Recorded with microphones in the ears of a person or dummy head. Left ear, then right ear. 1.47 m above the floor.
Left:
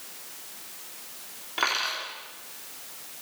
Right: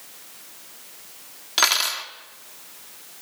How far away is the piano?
No piano in this recording.